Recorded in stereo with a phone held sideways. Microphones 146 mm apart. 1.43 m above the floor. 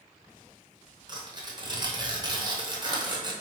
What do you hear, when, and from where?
1.1 s tearing paper: 30° right (ahead or behind), 0.9 m